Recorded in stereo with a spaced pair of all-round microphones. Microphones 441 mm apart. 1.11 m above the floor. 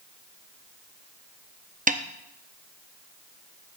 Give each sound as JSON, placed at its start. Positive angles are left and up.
{"t": 1.9, "sound": "a snare drum", "side_deg": -20, "distance_m": 0.6}